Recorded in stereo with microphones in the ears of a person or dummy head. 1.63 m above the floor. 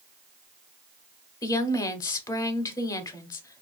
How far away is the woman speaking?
About 0.7 m.